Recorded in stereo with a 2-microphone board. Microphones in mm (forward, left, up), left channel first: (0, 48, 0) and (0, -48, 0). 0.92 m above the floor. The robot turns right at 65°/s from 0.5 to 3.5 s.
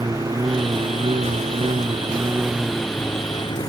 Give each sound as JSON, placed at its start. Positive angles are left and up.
{"t": 0.0, "sound": "a lawn mower", "azimuth_deg": -145}